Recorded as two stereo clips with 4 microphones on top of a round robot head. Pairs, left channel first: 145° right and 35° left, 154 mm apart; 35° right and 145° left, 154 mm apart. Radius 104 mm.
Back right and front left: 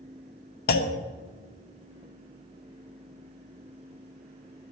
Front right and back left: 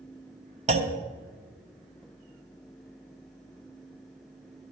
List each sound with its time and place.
0.7 s a clunk: 170° right, 1.1 m